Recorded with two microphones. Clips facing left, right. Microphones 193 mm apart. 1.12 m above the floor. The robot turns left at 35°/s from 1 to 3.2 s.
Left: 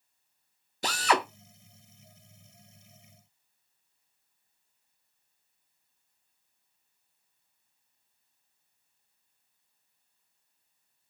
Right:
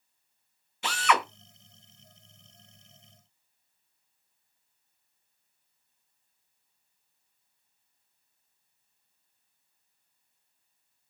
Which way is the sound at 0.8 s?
40° left (ahead or behind).